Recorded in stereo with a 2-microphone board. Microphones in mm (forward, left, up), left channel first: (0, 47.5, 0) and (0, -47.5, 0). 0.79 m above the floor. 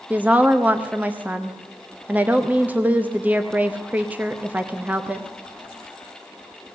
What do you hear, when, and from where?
0.1 s a woman speaking: 15° right (ahead or behind), 0.8 m